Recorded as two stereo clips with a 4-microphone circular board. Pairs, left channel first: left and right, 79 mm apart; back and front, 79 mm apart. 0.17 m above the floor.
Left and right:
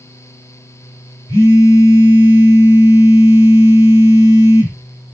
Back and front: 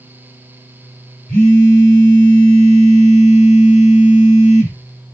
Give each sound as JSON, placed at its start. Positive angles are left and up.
{"t": 1.3, "sound": "a phone buzzing", "azimuth_deg": 105, "distance_m": 2.0}